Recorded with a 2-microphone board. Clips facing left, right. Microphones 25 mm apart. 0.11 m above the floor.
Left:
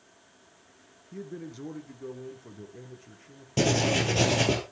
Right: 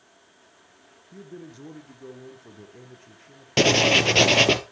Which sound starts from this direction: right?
Writing, at 3.6 s.